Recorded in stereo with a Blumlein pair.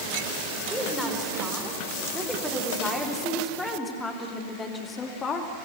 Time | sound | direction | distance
0.7 | a woman speaking | 5° right | 5 m